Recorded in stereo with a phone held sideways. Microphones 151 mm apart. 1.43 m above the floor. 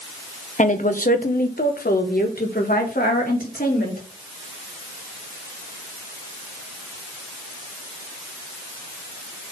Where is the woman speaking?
55° left (ahead or behind), 0.9 m; by 4.0 s 80° left, 2.5 m.